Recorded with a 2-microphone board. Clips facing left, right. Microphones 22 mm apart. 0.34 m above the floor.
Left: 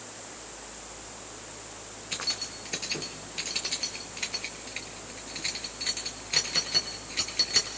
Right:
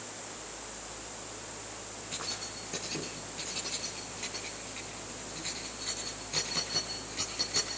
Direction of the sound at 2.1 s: 50° left (ahead or behind).